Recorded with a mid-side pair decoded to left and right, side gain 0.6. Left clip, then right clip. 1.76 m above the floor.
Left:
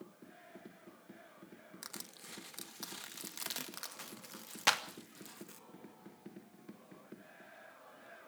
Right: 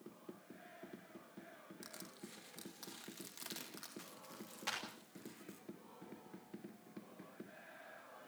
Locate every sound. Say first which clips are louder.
1.8 s crushing: left 6 dB; 40° left, 2.5 m
4.7 s a clap: left 12 dB; 60° left, 3 m